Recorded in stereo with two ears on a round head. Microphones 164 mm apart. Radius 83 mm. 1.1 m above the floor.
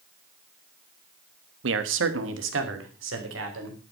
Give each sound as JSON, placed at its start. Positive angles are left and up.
{"t": 1.6, "sound": "a man speaking", "side_deg": -75, "distance_m": 1.3}